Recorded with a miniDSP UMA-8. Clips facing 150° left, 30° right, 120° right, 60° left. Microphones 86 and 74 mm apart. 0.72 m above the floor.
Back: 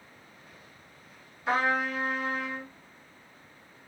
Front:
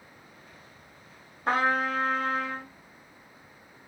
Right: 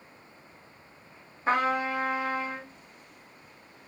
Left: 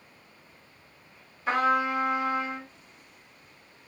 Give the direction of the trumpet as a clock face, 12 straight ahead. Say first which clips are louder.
Front 2 dB, left 2 dB; 2 o'clock.